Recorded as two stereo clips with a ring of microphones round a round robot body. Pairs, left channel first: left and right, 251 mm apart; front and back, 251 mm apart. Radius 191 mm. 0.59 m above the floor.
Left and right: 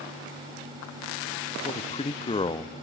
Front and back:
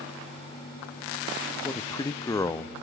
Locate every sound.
1.6 s a man speaking: 55° left, 0.6 m